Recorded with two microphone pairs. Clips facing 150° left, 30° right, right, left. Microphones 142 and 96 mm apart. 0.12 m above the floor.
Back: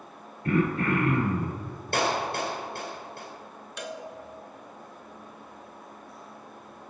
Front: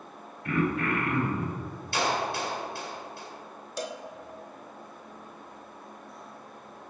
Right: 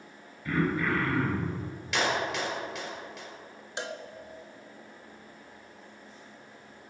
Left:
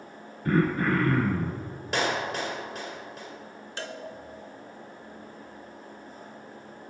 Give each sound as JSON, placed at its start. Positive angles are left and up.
{"t": 0.5, "sound": "throat clearing", "azimuth_deg": 110, "distance_m": 1.2}
{"t": 1.9, "sound": "a clap", "azimuth_deg": 130, "distance_m": 2.0}
{"t": 3.8, "sound": "a cowbell", "azimuth_deg": -35, "distance_m": 0.5}